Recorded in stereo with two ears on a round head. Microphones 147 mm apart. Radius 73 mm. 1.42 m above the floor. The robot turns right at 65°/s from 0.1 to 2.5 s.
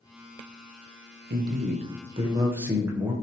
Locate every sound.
1.3 s a man speaking: 95° right, 0.7 m; by 3.1 s 15° right, 0.7 m